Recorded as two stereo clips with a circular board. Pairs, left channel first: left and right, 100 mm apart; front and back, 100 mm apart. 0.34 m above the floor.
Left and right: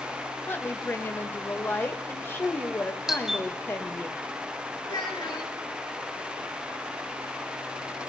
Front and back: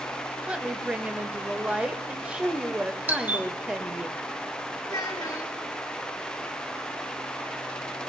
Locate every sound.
0.5 s a woman speaking: 120° left, 1.1 m
3.1 s a doorbell: 165° right, 1.3 m
4.8 s a child speaking: 50° left, 3.5 m